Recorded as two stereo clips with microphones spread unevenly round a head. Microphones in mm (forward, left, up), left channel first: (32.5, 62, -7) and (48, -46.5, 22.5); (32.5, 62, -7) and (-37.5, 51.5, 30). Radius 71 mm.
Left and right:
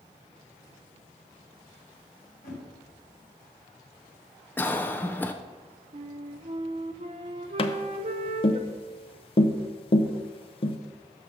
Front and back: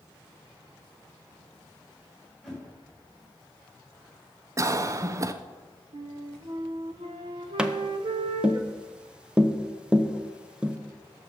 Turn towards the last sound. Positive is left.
turn(degrees=95)